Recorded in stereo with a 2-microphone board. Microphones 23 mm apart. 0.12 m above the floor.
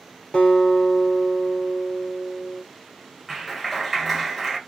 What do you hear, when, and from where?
0.3 s a guitar: 65° left (ahead or behind), 1.0 m
3.3 s a clap: centre (ahead or behind), 1.3 m